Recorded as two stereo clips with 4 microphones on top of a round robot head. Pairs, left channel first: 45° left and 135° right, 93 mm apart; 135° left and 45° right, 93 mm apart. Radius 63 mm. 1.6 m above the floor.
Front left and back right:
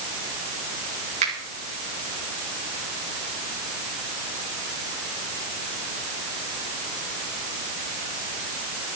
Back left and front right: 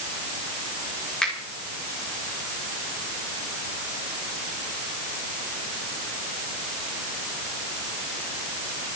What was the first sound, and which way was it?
A finger snap, 145° right.